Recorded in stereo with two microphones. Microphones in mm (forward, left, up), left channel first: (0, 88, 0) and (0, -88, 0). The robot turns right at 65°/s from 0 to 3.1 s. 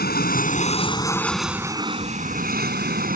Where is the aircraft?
90° left; by 3.2 s 70° right.